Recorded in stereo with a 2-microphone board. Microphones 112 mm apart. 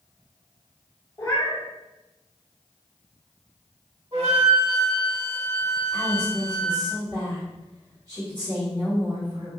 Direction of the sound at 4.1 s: 50° right (ahead or behind).